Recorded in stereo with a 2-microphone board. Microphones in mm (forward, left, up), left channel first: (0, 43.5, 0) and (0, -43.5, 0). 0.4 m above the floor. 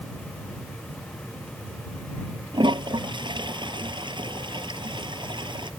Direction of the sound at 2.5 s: 65° right (ahead or behind).